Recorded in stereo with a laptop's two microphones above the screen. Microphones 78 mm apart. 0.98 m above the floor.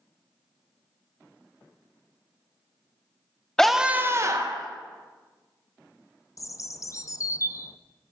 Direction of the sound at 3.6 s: 10° left (ahead or behind).